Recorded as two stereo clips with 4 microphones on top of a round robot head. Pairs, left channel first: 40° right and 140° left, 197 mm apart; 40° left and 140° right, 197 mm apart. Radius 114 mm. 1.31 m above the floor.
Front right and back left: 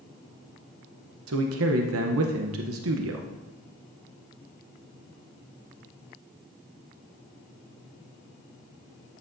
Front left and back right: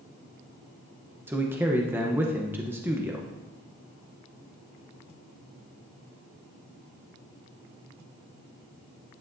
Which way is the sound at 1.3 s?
140° left.